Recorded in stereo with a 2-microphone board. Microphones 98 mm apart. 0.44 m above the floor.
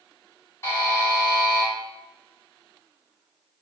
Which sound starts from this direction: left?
A buzzer, at 0.6 s.